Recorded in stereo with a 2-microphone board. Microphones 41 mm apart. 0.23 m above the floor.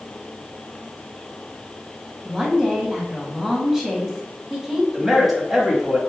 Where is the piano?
No piano in this recording.